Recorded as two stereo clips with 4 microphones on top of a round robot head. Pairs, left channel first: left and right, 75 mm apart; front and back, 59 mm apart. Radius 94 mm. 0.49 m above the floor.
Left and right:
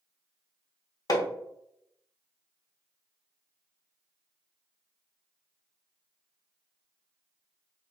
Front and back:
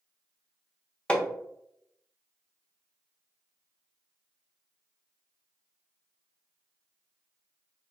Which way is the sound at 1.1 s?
70° left.